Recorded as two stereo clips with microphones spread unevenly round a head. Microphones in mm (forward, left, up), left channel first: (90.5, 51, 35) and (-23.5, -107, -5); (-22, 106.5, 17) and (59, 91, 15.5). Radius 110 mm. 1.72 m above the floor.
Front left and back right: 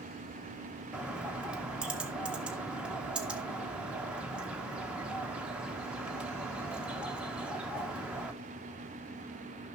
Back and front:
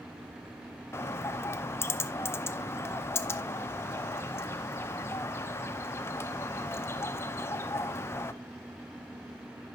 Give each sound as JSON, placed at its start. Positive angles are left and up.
{"t": 0.9, "sound": "a bird", "azimuth_deg": 135, "distance_m": 0.5}